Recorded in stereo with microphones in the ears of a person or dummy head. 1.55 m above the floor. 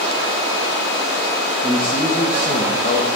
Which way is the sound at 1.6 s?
Centre (ahead or behind).